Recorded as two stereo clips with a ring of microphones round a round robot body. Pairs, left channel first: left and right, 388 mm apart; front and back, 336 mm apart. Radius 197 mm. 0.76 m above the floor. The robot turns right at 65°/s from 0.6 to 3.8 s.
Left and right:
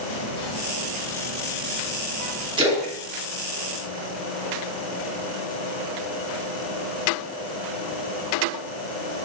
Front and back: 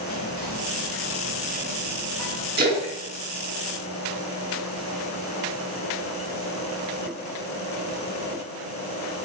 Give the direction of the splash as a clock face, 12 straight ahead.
5 o'clock.